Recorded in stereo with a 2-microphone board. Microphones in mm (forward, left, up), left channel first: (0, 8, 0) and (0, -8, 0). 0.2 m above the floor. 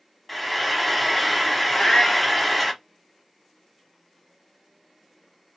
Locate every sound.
0.3 s frying: 10° left (ahead or behind), 0.9 m
1.7 s a cat meowing: 60° left (ahead or behind), 1.4 m